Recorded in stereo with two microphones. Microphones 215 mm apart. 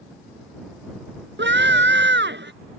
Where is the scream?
55° right (ahead or behind).